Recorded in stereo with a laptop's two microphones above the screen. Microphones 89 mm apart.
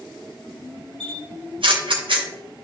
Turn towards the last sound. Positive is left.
turn(degrees=-70)  # may be behind; listen again after turning